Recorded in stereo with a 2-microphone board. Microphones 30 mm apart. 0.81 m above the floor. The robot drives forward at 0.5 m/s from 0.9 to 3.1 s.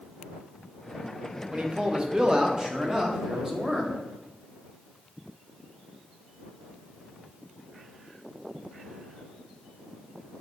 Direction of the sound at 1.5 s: 40° right (ahead or behind).